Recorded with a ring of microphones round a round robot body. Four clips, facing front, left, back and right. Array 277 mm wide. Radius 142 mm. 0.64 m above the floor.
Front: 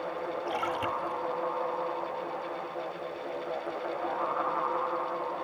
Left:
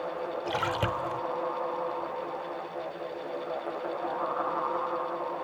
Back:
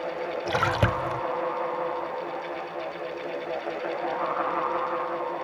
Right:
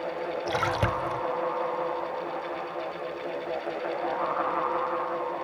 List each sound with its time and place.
0.5 s a splash: 175° right